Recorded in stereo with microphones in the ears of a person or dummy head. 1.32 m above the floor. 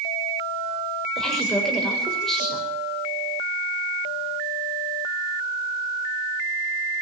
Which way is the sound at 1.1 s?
5° left (ahead or behind).